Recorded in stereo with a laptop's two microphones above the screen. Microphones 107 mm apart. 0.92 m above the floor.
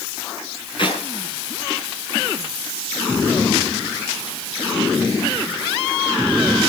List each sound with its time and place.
0.8 s a clap: 50° left (ahead or behind), 7.5 m